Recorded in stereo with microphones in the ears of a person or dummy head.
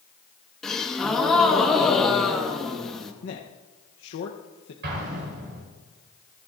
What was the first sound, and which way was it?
A gasp, centre (ahead or behind).